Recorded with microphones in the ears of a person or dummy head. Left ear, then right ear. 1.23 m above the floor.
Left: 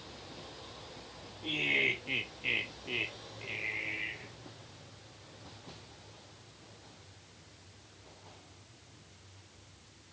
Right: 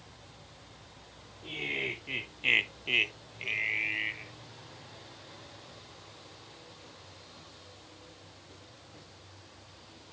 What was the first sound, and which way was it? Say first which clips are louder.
Laughter: left 4 dB; 20° left (ahead or behind).